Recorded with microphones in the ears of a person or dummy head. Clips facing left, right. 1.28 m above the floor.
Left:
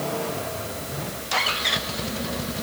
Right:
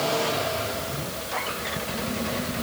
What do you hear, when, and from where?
Only background noise.